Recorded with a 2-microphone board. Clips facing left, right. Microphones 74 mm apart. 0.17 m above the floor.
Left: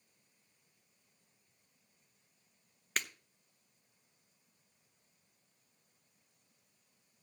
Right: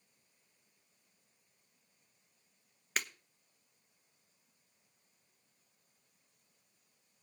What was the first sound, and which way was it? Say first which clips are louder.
Breaking glass: even; 5° right (ahead or behind).